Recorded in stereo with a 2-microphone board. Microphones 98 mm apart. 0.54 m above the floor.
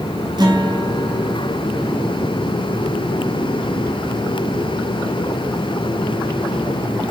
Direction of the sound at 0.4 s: 50° right (ahead or behind).